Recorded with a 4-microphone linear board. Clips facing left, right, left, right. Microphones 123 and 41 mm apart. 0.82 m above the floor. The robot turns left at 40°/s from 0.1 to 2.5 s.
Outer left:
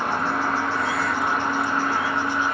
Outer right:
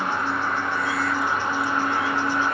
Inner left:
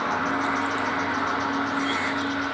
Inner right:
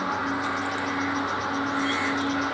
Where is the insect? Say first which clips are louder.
Outer left 1 dB, inner left 2 dB; 110° left, 9 m; by 2.5 s 10° left, 9 m.